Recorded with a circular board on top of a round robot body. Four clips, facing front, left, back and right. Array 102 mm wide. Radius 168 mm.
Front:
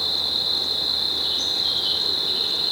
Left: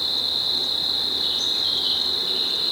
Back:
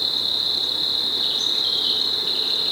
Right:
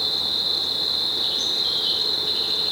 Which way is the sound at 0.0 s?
175° right.